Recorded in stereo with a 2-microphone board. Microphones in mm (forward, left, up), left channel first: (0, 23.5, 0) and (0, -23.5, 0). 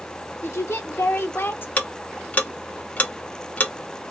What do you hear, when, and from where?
0.4 s a woman speaking: 65° left (ahead or behind), 1.1 m; by 1.7 s 45° left (ahead or behind), 0.7 m
1.8 s ticking: 35° left (ahead or behind), 0.7 m